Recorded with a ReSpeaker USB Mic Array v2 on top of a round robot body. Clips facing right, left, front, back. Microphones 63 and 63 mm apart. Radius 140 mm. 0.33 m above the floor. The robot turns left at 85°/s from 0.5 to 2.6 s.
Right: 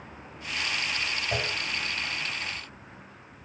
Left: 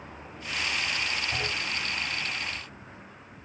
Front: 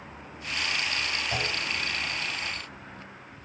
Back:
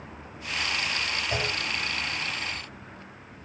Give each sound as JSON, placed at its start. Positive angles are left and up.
{"t": 1.3, "sound": "a clunk", "azimuth_deg": -110, "distance_m": 6.5}